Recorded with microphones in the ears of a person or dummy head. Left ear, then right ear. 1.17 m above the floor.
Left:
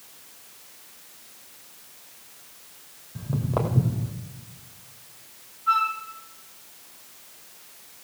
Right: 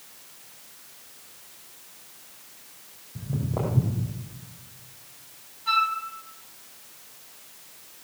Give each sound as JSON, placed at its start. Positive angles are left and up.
{"t": 3.1, "sound": "footsteps", "side_deg": 60, "distance_m": 2.5}
{"t": 5.7, "sound": "a flute", "side_deg": -45, "distance_m": 3.0}